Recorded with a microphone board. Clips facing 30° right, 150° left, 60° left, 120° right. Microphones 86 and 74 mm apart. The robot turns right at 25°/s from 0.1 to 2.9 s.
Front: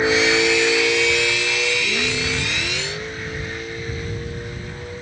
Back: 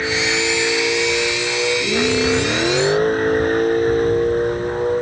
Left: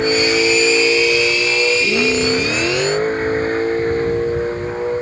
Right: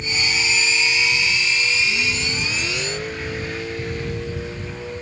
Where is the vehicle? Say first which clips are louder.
Front 3 dB, left 10 dB; 40° left; by 5.0 s 110° left.